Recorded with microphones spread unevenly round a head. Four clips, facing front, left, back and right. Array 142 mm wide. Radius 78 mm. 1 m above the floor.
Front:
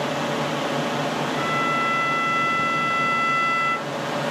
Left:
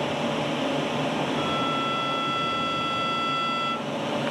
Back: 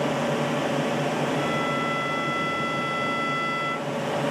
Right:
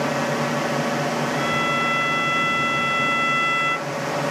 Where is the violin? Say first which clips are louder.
Right 3 dB, front 2 dB; straight ahead.